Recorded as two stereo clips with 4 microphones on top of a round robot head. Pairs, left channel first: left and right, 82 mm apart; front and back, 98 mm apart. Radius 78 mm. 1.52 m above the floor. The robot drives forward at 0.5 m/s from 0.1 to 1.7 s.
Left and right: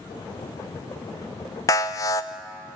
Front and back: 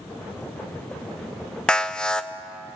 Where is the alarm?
80° left, 0.5 m.